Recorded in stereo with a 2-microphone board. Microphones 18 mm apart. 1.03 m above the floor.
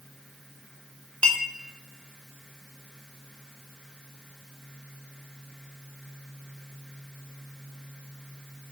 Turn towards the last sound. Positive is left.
turn(degrees=75)  # may be behind; listen again after turning